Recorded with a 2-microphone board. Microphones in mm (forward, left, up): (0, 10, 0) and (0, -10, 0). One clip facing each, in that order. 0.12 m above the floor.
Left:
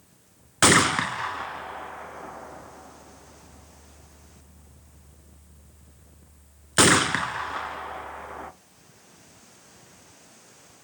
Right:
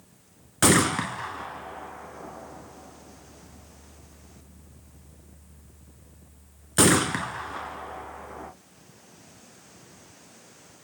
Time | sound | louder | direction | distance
0.6 | a gunshot | left 3 dB | 20° left (ahead or behind) | 0.6 m